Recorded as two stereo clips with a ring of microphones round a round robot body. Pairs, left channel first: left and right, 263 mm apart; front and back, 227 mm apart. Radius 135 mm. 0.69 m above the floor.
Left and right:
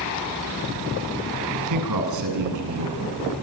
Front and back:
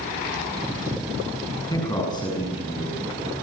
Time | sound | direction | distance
1.7 | a man speaking | 75° right | 8 m